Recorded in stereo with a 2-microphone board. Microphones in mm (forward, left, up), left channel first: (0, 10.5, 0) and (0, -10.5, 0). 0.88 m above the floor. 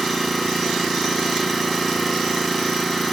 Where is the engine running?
5° left (ahead or behind), 2 m.